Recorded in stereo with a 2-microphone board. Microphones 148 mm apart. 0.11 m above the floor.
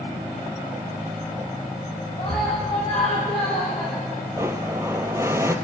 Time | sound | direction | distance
2.2 | a scream | 35° left (ahead or behind) | 6 m
4.4 | a blender | 20° right (ahead or behind) | 1.4 m